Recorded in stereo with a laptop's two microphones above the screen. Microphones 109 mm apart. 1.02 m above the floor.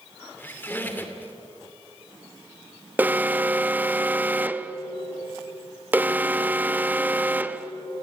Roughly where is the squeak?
Centre.